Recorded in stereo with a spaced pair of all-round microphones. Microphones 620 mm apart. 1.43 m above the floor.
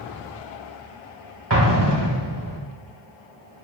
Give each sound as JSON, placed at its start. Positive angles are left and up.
{"t": 1.5, "sound": "an explosion", "side_deg": -40, "distance_m": 1.5}